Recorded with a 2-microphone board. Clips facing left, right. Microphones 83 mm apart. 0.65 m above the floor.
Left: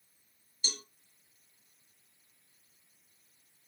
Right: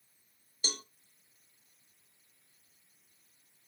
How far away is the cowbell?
About 0.6 m.